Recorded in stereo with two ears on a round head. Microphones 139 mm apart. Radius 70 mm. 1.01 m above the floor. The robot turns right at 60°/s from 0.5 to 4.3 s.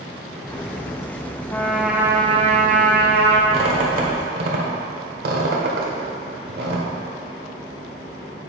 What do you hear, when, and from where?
1.5 s a trumpet: 165° left, 0.8 m; by 3.4 s 80° right, 0.8 m
3.5 s a squeak: 40° right (ahead or behind), 1.4 m; by 6.9 s 75° right (ahead or behind), 1.4 m